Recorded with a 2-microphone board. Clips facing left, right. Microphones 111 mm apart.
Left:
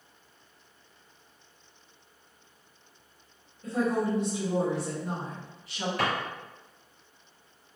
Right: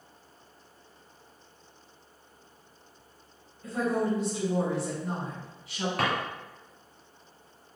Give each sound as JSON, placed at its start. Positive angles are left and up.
{"t": 3.6, "sound": "a woman speaking", "side_deg": 25, "distance_m": 1.1}
{"t": 6.0, "sound": "a drawer", "side_deg": -60, "distance_m": 1.4}